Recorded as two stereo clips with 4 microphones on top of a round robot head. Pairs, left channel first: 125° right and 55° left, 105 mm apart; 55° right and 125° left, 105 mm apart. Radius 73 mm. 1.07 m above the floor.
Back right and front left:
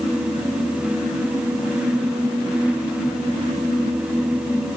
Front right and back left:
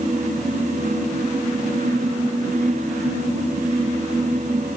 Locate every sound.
Only background noise.